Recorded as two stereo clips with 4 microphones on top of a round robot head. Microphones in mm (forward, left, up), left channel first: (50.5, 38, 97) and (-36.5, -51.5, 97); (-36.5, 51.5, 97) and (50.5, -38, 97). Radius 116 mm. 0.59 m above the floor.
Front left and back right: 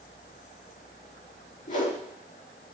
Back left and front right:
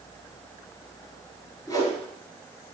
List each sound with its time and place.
1.7 s a whoosh: 70° left, 5 m